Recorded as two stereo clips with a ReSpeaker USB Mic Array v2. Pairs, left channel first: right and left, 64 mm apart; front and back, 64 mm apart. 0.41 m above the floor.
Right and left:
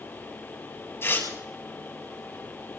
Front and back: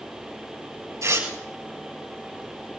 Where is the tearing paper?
145° right, 5.5 m.